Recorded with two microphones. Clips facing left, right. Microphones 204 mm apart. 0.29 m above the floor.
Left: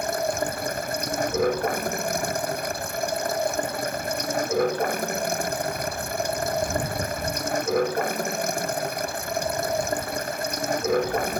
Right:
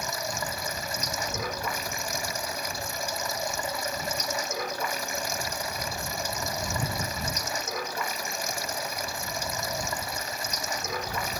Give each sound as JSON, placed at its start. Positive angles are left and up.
{"t": 0.0, "sound": "running water", "side_deg": 55}